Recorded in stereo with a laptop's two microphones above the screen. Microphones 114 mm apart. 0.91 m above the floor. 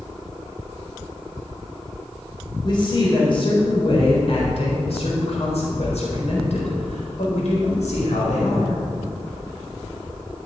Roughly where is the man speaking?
Left.